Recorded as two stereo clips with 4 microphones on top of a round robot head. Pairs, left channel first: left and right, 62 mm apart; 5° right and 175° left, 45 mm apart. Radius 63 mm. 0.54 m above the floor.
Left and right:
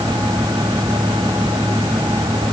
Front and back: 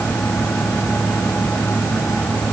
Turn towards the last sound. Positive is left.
No sound to turn to.